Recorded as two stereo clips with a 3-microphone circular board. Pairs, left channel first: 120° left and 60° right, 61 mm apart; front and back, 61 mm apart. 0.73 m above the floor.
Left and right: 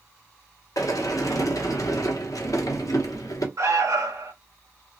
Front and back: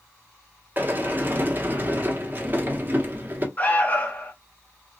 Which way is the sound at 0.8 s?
125° left.